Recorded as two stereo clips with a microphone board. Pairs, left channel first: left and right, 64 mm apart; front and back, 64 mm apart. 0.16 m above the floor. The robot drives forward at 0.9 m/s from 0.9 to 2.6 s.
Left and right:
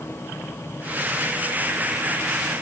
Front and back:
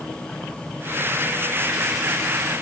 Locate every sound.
Only background noise.